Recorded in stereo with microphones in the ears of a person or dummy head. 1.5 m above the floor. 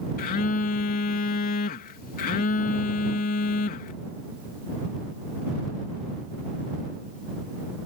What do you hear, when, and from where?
0.2 s a phone buzzing: 50° left (ahead or behind)